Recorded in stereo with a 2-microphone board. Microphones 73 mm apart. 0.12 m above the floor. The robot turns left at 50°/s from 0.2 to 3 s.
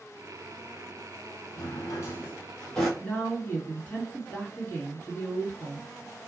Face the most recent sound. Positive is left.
turn(degrees=30)  # may be behind; listen again after turning